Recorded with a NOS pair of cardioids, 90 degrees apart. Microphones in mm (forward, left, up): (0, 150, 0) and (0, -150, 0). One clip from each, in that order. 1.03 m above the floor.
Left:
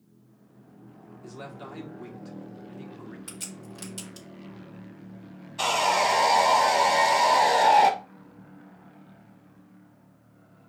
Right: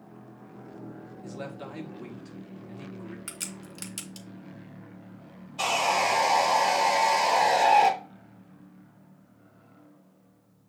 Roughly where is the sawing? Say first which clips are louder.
Left 2 dB; ahead.